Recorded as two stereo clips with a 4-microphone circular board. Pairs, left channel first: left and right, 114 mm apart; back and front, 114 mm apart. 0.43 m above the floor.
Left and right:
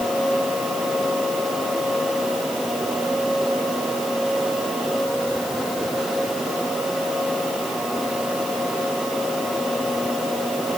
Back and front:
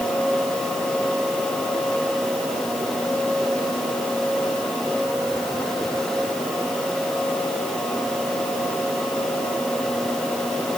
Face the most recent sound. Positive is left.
No sound to turn to.